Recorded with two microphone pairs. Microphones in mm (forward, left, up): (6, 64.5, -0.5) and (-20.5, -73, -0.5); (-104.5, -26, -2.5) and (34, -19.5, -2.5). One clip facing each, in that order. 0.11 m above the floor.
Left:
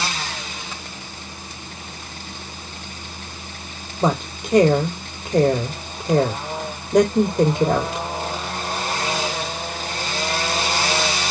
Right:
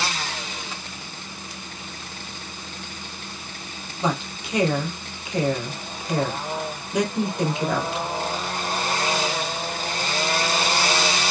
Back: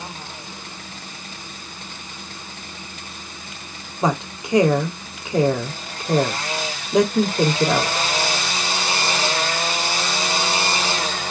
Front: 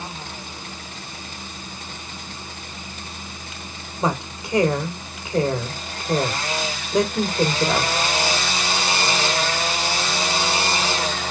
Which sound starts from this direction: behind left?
A woman speaking, at 4.0 s.